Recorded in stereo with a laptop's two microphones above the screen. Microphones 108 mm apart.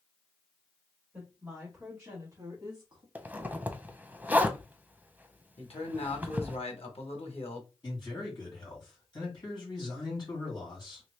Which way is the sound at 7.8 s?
45° left (ahead or behind).